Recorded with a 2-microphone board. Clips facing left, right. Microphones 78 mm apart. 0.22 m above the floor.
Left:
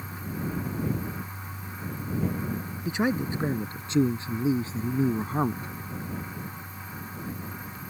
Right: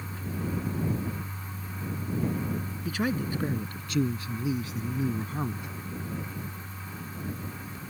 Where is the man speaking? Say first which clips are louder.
Left 3 dB; 20° left (ahead or behind); by 5.7 s 35° left (ahead or behind).